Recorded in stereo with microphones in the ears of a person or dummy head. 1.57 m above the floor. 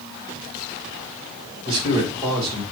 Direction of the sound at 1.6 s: 30° right (ahead or behind).